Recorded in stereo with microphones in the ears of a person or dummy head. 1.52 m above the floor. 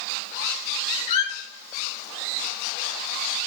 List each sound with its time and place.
1.1 s a squeak: 60° left (ahead or behind), 2.0 m